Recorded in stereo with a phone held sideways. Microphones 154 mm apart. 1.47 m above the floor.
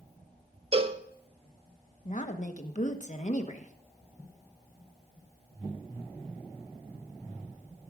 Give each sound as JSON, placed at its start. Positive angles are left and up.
{"t": 0.7, "sound": "a cowbell", "side_deg": -40, "distance_m": 0.8}
{"t": 2.0, "sound": "a woman speaking", "side_deg": 50, "distance_m": 1.2}